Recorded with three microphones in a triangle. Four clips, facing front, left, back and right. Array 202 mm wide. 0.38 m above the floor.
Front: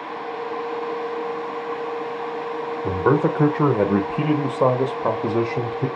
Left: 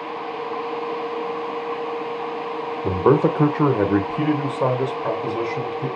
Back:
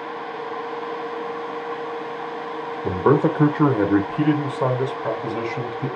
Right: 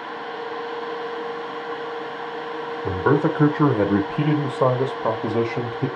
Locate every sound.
2.8 s a man speaking: 115° left, 1.1 m; by 5.9 s 40° right, 1.5 m